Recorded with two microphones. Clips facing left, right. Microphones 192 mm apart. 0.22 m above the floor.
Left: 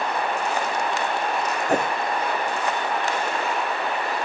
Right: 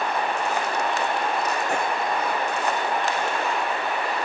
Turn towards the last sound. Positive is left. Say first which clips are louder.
# left 4 dB
turn(degrees=40)  # may be behind; listen again after turning